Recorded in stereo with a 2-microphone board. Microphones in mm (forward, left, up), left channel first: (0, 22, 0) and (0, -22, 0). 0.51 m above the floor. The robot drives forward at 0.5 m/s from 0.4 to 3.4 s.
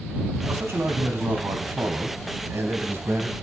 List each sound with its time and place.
0.4 s a man speaking: 70° right (ahead or behind), 3.5 m